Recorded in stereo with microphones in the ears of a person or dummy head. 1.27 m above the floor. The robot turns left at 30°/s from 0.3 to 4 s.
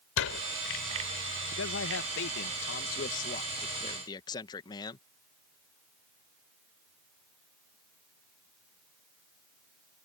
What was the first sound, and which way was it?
A door slam, 85° left.